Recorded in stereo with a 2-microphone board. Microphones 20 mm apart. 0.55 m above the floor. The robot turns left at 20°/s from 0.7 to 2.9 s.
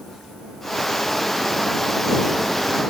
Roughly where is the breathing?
No breathing in this recording.